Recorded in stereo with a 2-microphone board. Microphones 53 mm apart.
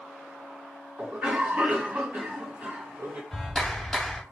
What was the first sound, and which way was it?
A cough, 25° right (ahead or behind).